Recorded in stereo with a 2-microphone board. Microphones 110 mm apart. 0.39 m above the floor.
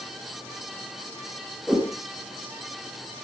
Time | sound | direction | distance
1.7 | a whoosh | 10° right (ahead or behind) | 5.5 m